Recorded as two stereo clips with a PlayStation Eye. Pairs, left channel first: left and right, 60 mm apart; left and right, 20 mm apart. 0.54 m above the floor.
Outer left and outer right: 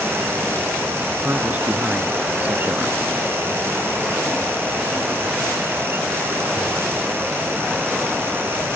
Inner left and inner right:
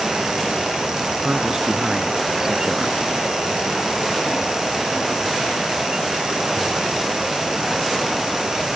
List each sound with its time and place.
1.2 s a man speaking: 25° right (ahead or behind); by 3.0 s 20° right (ahead or behind)